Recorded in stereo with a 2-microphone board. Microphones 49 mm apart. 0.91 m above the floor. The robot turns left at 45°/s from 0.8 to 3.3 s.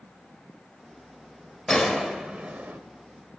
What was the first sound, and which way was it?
A gunshot, 15° left.